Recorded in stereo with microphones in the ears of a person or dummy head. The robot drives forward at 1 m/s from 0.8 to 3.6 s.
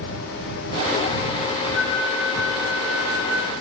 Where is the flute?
Centre (ahead or behind), 3.5 m.